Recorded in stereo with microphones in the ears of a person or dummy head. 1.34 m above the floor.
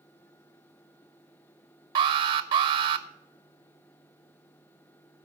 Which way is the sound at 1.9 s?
30° right (ahead or behind).